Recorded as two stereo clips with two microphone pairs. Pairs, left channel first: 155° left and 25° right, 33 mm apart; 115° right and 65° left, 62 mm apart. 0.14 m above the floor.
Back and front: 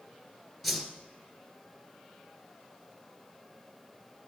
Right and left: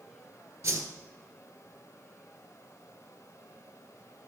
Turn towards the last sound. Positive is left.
turn(degrees=65)